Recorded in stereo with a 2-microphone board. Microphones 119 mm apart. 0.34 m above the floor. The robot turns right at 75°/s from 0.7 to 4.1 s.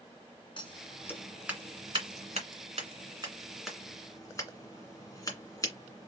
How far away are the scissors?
About 1.9 m.